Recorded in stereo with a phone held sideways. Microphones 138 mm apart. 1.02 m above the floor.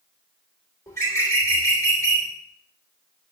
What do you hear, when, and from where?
0.9 s a bird: 20° left (ahead or behind), 3.5 m